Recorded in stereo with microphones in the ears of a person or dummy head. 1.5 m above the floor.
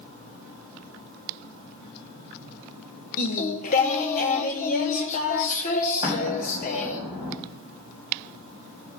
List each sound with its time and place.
3.2 s singing: 45° left (ahead or behind), 1.2 m
6.0 s an explosion: 25° right (ahead or behind), 5 m